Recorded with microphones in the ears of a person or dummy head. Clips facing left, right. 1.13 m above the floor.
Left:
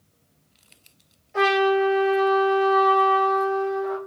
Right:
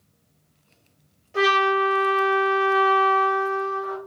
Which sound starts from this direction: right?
A trumpet, at 1.3 s.